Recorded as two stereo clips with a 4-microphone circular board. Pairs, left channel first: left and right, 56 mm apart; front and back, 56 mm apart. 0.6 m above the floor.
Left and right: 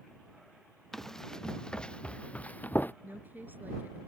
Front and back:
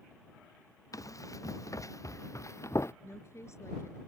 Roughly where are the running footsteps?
Ahead.